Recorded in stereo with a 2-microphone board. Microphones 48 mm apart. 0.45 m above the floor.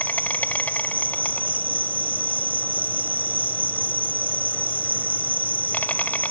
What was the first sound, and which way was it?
An insect, 35° left (ahead or behind).